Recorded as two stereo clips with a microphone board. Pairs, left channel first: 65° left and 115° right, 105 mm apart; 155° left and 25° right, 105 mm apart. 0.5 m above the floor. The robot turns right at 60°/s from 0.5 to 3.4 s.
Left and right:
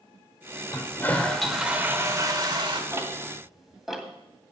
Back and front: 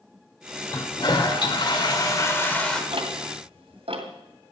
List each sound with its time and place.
0.7 s a toilet flushing: 115° left, 2 m; by 2.8 s 120° right, 2 m
2.9 s ticking: 55° right, 2 m; by 4.1 s 25° right, 2 m